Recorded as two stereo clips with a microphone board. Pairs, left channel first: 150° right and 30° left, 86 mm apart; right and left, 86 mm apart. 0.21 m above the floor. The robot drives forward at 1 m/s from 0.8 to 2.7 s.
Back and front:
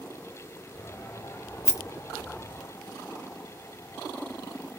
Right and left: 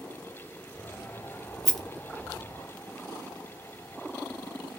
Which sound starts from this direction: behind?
A rattle, at 1.6 s.